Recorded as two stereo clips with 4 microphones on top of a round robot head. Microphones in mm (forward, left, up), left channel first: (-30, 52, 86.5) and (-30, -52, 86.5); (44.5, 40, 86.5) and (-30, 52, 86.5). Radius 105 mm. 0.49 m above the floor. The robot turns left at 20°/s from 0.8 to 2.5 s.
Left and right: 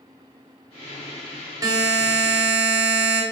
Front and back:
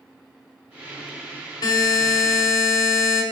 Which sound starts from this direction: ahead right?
A buzzer, at 1.6 s.